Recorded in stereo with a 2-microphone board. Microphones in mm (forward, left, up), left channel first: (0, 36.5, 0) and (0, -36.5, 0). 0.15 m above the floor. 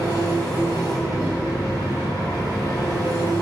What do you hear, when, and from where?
0.0 s an engine running: 60° left (ahead or behind), 4 m